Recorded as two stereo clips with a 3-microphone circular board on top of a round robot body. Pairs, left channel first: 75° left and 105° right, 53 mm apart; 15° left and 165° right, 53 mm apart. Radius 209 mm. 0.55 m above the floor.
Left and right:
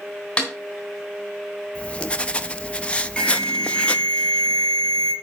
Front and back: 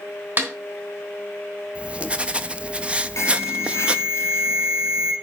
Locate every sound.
0.4 s a snare drum: 150° left, 3 m
1.8 s writing: 135° left, 0.9 m
3.2 s an alarm: straight ahead, 2 m